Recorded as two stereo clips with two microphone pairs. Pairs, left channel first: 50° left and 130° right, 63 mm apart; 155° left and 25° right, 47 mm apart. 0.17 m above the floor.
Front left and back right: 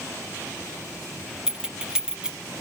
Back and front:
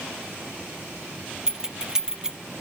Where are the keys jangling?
80° right, 0.9 m.